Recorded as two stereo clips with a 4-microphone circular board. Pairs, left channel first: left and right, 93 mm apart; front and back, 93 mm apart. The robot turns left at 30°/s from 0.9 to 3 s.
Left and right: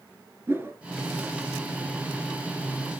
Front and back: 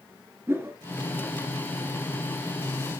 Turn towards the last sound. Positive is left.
turn(degrees=160)